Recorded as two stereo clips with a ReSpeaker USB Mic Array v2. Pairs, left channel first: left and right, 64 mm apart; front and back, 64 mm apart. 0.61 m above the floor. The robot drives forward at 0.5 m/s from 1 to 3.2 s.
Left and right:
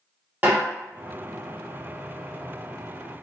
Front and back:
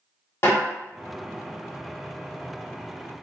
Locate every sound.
0.4 s a snare drum: 35° right, 1.3 m